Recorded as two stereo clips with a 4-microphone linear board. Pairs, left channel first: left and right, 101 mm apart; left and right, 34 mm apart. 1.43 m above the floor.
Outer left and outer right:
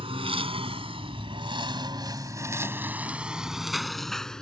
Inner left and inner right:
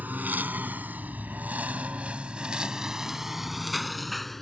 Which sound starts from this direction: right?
A lawn mower, at 0.0 s.